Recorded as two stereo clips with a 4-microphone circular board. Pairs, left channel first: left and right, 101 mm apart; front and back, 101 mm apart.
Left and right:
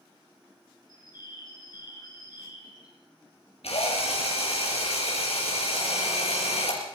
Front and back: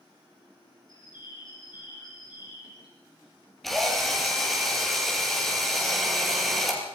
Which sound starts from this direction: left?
A drill, at 3.6 s.